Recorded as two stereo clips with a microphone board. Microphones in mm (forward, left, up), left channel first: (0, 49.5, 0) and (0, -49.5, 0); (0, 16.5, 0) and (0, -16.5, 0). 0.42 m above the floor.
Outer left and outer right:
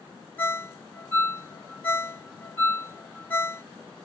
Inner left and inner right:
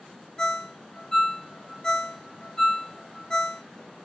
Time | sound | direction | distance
0.4 | a ringtone | 20° left (ahead or behind) | 0.7 m